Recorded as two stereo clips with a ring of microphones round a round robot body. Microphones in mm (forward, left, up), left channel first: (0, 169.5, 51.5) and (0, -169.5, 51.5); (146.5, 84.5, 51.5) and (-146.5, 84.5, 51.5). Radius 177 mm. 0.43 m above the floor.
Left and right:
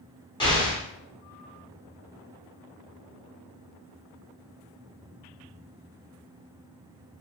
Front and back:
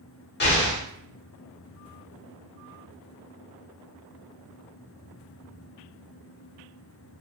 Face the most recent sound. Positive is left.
turn(degrees=20)